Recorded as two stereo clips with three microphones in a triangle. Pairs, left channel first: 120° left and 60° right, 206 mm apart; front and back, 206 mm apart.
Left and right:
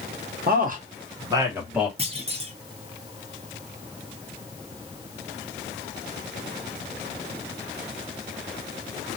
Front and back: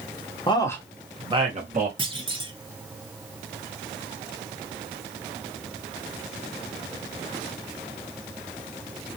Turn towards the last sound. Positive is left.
turn(degrees=-115)